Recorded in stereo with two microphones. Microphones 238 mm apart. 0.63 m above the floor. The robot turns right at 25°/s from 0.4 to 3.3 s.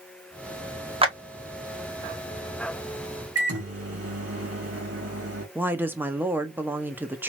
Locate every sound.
1.0 s a clap: 25° right (ahead or behind), 0.7 m
3.4 s a microwave: 75° right (ahead or behind), 1.7 m
5.5 s a woman speaking: 10° right (ahead or behind), 0.5 m